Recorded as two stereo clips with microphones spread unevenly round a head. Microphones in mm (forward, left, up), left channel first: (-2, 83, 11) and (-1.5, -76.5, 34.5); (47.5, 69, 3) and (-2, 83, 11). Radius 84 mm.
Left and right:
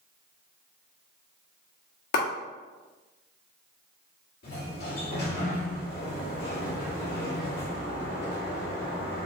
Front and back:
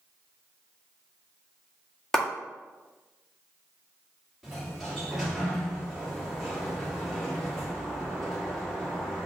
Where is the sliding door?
75° left, 2 m.